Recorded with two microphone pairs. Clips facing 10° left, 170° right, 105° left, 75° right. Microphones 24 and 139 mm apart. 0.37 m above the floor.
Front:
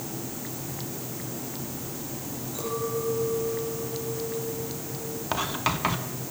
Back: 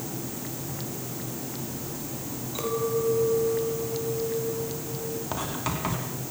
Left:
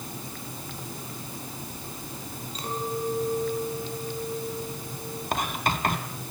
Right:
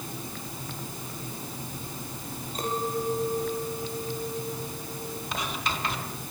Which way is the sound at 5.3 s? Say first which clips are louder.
Front 7 dB, left 6 dB; 65° left.